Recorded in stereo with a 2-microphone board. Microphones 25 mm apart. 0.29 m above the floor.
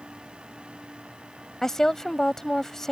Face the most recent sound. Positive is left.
turn(degrees=20)  # may be behind; listen again after turning